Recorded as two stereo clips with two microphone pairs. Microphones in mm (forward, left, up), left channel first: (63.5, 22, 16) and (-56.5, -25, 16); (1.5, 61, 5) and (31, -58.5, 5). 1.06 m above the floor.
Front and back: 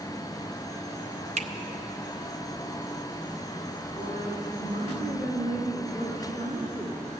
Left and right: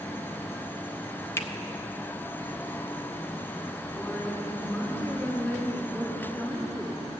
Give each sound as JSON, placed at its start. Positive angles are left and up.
{"t": 1.4, "sound": "a finger snap", "azimuth_deg": 175, "distance_m": 0.6}
{"t": 3.9, "sound": "a woman speaking", "azimuth_deg": 180, "distance_m": 2.0}